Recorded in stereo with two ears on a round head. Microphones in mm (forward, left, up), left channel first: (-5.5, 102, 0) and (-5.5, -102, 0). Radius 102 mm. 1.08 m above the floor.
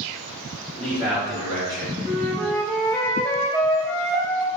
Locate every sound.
0.7 s a man speaking: 15° right (ahead or behind), 1.4 m; by 1.9 s 45° right (ahead or behind), 1.3 m
2.0 s a flute: 10° left (ahead or behind), 0.6 m